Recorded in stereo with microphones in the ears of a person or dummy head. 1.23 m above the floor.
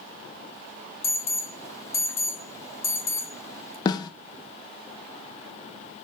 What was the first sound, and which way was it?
An alarm, 10° left (ahead or behind).